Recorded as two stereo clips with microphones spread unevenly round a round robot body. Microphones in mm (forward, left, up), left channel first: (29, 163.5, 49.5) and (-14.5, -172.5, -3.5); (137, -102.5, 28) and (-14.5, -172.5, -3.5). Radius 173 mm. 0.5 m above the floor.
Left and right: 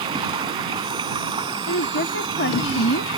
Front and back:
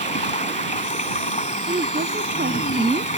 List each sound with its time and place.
0.0 s running water: 20° right
1.7 s a woman speaking: 145° left